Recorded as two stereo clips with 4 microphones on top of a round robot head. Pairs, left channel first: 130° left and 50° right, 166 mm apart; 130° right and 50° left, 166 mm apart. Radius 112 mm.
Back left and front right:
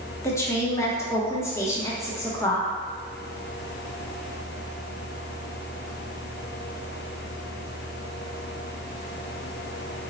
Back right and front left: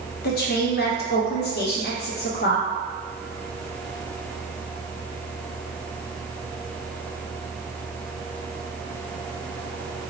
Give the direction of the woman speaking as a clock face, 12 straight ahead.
5 o'clock.